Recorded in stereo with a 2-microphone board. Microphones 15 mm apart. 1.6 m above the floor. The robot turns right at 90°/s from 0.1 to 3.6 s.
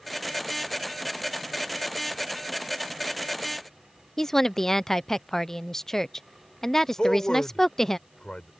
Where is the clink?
I don't hear a clink.